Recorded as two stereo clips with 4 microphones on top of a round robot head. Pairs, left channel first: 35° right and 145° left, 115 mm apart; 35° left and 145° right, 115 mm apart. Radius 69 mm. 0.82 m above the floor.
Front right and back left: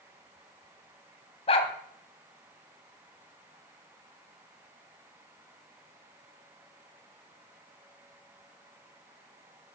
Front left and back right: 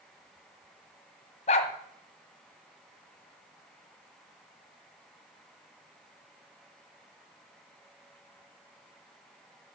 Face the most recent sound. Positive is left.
turn(degrees=5)